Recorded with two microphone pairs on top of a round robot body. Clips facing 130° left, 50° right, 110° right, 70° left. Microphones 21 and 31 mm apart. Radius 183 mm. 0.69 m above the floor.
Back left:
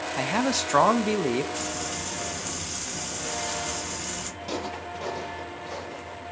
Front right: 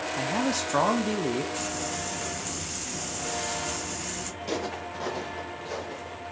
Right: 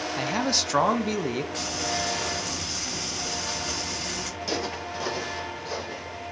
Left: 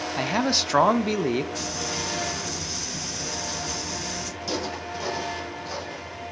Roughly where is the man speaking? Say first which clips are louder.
Back left 3 dB, left 3 dB; behind left.